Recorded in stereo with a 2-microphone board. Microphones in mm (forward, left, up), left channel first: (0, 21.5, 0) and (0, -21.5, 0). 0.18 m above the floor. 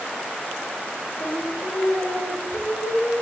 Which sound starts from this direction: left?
Singing, at 1.2 s.